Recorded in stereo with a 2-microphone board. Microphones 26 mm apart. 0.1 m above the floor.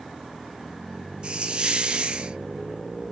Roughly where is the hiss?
Right.